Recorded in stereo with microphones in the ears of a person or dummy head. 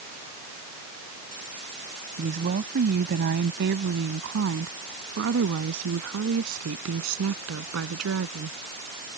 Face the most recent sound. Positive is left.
turn(degrees=-80)